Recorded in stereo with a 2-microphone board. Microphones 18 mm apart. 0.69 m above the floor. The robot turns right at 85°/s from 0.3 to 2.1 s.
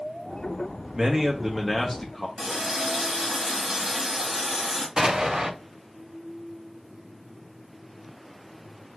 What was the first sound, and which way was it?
A man speaking, 25° right (ahead or behind).